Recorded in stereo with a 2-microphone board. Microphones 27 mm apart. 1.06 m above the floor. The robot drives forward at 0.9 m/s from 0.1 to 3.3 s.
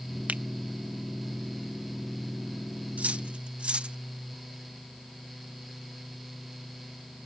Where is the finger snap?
65° right (ahead or behind); by 0.4 s 60° right (ahead or behind).